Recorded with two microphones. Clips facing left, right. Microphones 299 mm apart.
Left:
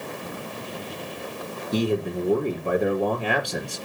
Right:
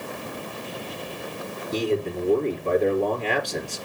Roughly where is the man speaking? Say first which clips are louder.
Left 1 dB; centre.